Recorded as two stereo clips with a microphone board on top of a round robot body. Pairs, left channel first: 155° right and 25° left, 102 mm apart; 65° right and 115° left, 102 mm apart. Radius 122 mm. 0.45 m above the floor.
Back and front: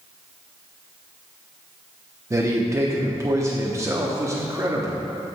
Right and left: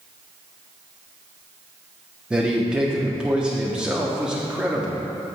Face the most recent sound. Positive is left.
turn(degrees=40)